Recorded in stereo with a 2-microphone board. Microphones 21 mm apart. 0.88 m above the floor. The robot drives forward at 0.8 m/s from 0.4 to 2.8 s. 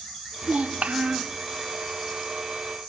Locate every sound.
0.4 s a child speaking: 70° right (ahead or behind), 0.7 m; by 1.4 s 55° right (ahead or behind), 0.8 m